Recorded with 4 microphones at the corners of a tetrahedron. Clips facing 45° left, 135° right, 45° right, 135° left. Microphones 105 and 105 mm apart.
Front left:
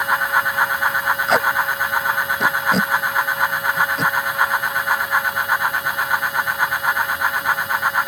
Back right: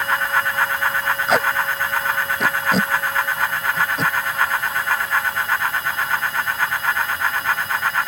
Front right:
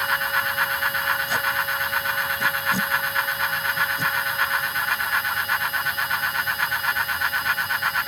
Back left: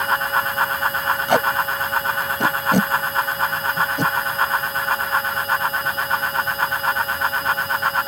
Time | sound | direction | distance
1.3 | tape being pulled | 135° left | ?